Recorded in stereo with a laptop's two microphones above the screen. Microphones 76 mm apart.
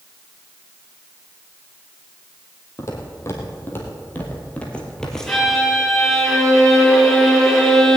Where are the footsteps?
40° left (ahead or behind), 2.5 m; by 5.5 s centre (ahead or behind), 1.7 m.